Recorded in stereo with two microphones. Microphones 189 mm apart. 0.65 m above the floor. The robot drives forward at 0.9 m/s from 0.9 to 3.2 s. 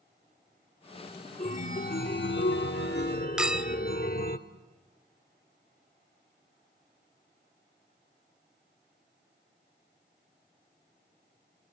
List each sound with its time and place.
1.4 s a chime: 35° left (ahead or behind), 1.3 m; by 4.4 s 50° left (ahead or behind), 1.0 m
3.4 s a clink: 5° right (ahead or behind), 0.7 m